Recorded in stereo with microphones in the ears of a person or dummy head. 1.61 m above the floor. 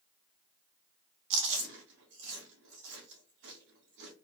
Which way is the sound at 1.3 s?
70° right (ahead or behind).